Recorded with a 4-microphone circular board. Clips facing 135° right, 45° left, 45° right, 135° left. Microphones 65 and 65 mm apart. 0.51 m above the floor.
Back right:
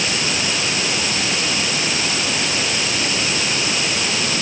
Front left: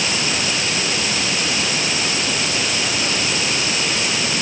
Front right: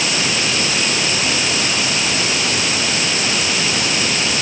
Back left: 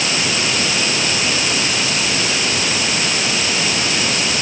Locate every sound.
Only background noise.